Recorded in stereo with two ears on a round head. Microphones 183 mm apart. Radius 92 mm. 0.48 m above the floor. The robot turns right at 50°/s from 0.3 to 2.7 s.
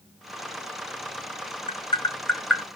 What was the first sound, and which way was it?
Tapping, 30° left (ahead or behind).